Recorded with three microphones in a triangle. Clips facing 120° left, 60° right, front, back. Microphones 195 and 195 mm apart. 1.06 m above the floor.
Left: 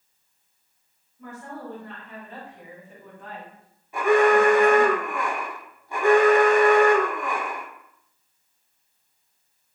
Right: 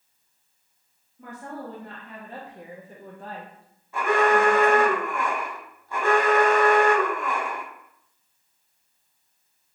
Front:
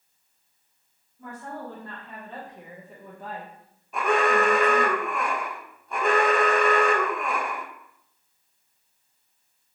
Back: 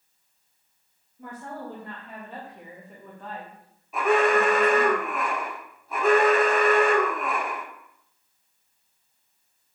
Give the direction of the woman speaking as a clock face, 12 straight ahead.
4 o'clock.